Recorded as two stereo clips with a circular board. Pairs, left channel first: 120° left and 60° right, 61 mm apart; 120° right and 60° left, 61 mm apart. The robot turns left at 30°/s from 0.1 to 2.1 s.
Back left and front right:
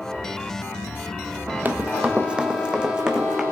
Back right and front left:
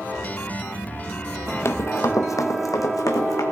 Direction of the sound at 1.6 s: 105° right.